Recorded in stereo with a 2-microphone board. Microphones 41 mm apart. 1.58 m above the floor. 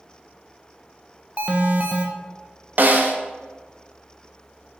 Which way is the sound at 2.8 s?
50° right (ahead or behind).